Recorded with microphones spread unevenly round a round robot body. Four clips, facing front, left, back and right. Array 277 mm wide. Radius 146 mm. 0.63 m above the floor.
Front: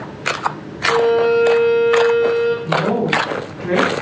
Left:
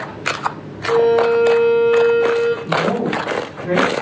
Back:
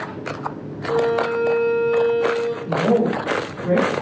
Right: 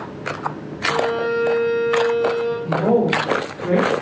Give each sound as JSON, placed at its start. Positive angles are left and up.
{"t": 0.9, "sound": "a violin", "azimuth_deg": -120, "distance_m": 3.0}
{"t": 2.6, "sound": "a woman speaking", "azimuth_deg": -110, "distance_m": 3.0}